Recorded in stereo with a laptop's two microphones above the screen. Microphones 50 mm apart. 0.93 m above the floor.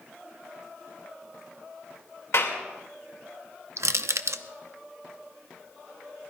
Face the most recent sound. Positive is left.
turn(degrees=-65)  # may be behind; listen again after turning